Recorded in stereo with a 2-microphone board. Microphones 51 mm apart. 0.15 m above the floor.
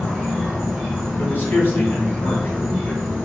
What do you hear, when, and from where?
0.0 s an insect: 5° right (ahead or behind), 1.3 m
1.2 s a man speaking: 45° left (ahead or behind), 1.6 m